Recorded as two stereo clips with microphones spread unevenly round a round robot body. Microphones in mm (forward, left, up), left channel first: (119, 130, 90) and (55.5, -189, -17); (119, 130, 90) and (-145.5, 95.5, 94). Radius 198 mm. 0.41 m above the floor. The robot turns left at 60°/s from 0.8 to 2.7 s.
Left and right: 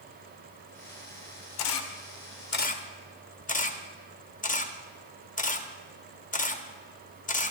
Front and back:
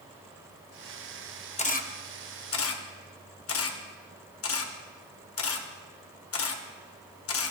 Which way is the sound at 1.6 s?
70° left.